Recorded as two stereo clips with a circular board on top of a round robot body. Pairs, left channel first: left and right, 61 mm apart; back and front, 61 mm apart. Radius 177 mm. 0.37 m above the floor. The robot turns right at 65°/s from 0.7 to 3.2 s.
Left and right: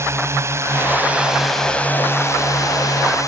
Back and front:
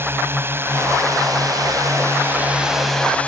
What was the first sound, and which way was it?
A drone, 50° right.